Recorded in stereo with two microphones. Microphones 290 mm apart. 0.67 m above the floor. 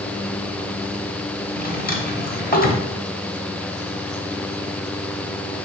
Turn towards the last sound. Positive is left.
turn(degrees=30)  # may be behind; listen again after turning